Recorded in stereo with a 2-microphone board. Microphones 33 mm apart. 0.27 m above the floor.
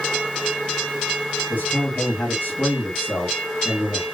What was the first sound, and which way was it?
A man speaking, 50° left (ahead or behind).